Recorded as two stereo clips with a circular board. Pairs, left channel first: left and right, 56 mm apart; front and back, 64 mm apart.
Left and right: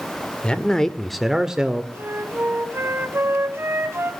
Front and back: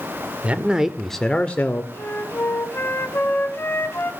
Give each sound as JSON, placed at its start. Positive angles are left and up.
{"t": 0.4, "sound": "a man speaking", "azimuth_deg": 140, "distance_m": 0.8}
{"t": 1.9, "sound": "a flute", "azimuth_deg": -55, "distance_m": 0.8}